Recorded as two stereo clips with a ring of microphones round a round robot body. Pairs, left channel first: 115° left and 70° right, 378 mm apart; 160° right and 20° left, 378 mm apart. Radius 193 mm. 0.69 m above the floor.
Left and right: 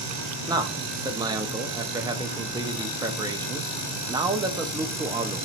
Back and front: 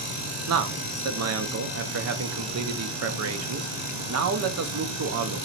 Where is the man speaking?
5° left, 0.6 m.